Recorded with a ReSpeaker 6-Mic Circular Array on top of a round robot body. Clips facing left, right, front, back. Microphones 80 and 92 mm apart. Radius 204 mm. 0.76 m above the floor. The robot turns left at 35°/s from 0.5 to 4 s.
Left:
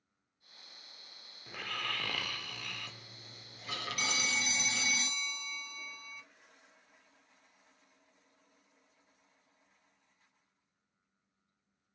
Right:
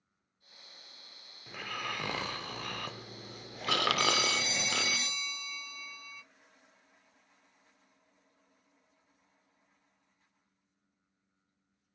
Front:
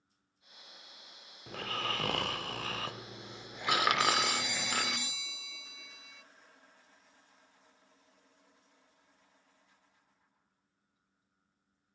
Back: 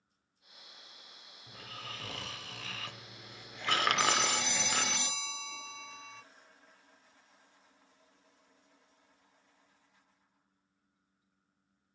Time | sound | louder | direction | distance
1.5 | snoring | right 1 dB, front 10 dB | straight ahead | 0.6 m
4.0 | a phone ringing | right 6 dB, even | straight behind | 2 m